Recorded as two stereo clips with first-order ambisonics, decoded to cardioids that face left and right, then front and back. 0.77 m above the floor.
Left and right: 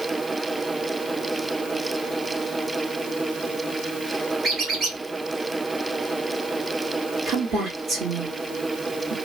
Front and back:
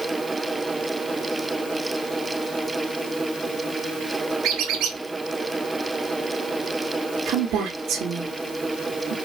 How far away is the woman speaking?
About 1.7 m.